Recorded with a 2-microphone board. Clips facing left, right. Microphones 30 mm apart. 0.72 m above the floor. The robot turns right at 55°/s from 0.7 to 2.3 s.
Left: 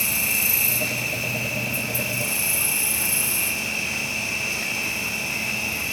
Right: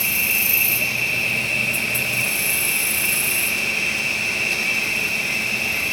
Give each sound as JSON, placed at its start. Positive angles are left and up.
{"t": 0.0, "sound": "an insect", "azimuth_deg": -165, "distance_m": 4.0}